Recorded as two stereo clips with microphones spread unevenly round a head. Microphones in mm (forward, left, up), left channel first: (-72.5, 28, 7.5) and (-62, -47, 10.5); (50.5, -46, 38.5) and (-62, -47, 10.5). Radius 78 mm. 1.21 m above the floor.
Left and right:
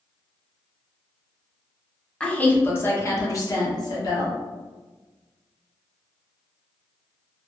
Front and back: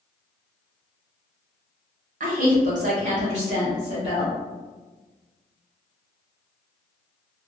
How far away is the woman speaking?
About 0.9 m.